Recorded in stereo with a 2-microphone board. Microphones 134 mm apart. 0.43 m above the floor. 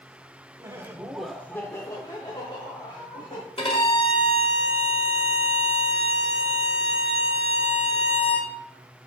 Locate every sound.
0.6 s laughter: 25° right (ahead or behind), 0.9 m; by 3.4 s 45° left (ahead or behind), 2 m
3.6 s a violin: 45° left (ahead or behind), 1.3 m